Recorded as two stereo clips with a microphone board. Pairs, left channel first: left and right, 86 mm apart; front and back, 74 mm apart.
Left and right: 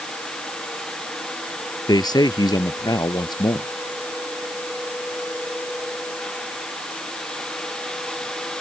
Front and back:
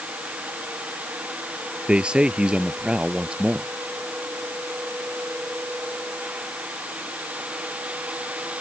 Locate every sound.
1.9 s a man speaking: 105° left